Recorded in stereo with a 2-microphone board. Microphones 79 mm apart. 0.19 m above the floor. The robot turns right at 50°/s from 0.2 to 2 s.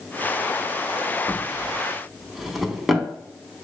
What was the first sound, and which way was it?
A drawer, 20° left (ahead or behind).